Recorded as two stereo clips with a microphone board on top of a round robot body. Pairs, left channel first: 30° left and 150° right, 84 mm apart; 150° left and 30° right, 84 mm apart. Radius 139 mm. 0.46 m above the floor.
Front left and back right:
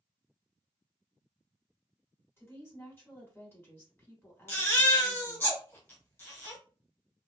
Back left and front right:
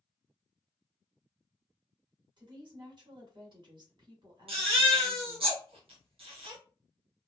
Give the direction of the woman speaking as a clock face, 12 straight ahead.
1 o'clock.